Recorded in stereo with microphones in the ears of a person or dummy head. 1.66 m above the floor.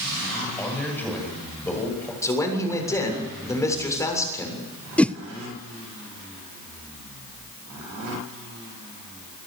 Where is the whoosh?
5° left (ahead or behind), 0.6 m.